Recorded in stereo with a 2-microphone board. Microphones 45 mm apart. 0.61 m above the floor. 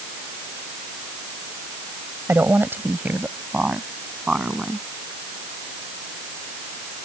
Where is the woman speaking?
55° right (ahead or behind); by 4.9 s 15° right (ahead or behind).